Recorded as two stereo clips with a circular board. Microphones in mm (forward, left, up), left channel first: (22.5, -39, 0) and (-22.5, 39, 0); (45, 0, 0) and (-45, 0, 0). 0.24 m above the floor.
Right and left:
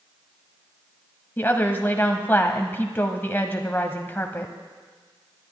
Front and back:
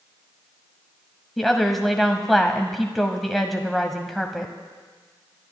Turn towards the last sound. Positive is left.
turn(degrees=-90)